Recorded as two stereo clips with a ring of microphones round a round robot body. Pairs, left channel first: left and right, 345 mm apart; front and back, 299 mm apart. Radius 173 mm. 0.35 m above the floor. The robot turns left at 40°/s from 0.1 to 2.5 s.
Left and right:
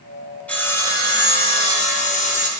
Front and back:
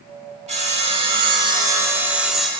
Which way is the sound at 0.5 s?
170° left.